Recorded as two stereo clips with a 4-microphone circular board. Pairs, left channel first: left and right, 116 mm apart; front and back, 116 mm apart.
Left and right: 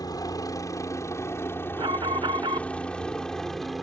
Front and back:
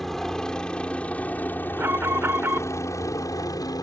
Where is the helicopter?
85° left; by 3.8 s straight ahead.